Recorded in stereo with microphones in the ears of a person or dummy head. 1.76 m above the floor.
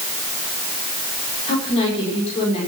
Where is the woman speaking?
30° left (ahead or behind), 6 m.